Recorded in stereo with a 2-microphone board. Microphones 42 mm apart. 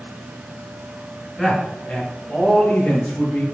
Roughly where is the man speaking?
Centre.